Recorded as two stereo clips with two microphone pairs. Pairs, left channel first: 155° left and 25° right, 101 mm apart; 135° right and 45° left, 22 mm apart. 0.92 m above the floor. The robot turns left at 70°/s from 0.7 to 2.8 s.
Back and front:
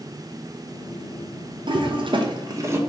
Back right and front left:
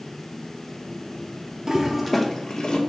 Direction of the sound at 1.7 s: 5° right.